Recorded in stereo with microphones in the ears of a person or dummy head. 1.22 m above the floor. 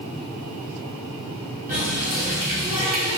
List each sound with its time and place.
1.7 s a running tap: 45° right (ahead or behind), 1.3 m